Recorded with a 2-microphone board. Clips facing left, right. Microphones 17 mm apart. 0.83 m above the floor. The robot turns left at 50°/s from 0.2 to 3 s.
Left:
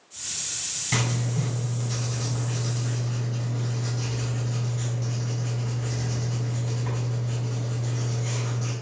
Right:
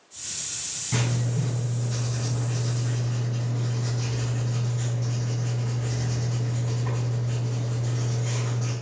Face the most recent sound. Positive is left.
turn(degrees=0)